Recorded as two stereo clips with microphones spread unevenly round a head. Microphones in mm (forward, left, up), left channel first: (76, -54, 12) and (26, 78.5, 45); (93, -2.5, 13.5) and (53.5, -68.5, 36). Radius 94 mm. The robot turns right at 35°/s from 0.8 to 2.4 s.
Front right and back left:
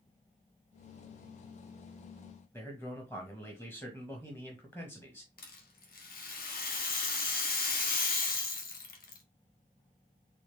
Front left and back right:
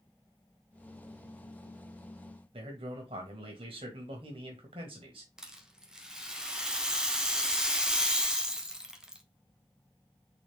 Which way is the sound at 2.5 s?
150° right.